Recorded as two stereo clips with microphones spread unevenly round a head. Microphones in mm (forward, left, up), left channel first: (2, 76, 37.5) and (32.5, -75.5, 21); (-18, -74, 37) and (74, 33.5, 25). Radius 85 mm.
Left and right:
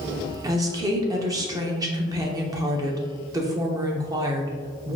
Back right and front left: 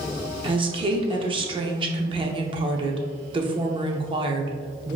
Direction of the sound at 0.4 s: 10° right.